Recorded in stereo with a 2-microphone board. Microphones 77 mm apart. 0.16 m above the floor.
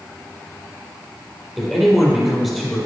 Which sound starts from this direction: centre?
A man speaking, at 1.6 s.